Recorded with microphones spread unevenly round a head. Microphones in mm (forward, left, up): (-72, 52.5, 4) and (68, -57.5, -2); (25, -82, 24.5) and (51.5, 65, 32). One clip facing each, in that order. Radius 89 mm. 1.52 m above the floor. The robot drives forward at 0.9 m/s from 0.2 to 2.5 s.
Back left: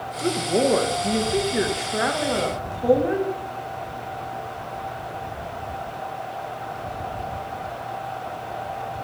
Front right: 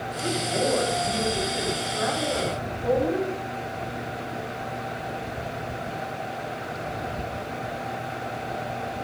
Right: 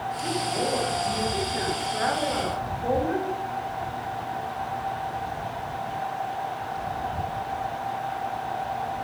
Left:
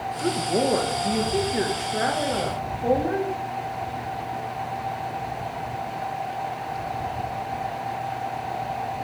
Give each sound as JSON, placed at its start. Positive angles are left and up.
{"t": 0.2, "sound": "a woman speaking", "azimuth_deg": 100, "distance_m": 1.7}